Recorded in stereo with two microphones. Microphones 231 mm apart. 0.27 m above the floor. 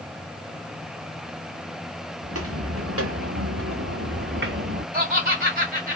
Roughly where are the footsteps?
Right.